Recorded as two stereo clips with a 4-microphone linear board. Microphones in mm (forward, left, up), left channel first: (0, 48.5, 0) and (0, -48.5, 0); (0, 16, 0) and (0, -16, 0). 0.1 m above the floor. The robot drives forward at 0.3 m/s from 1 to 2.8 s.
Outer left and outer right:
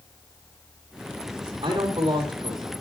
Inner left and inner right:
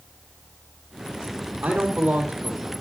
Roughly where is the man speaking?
Right.